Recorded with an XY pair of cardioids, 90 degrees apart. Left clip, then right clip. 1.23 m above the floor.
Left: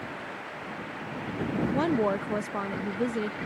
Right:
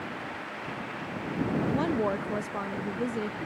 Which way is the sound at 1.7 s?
30° left.